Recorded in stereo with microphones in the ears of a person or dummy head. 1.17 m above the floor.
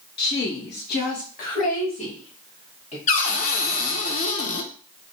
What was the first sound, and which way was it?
A woman speaking, 50° left (ahead or behind).